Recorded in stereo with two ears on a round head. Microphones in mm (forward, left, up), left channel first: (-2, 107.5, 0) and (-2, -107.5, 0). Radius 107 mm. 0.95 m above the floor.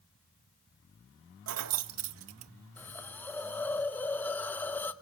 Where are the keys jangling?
60° right (ahead or behind), 0.6 m.